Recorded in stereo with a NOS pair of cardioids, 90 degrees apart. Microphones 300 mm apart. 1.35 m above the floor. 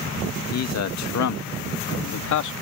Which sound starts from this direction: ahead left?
A man speaking, at 0.5 s.